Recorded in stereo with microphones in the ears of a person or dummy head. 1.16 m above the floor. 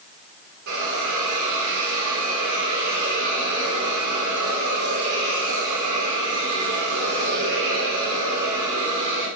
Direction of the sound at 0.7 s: 70° right (ahead or behind).